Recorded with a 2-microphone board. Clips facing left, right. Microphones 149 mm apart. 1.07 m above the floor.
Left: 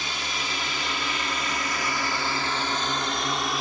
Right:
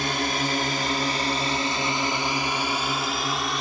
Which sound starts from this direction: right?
A drone, at 0.0 s.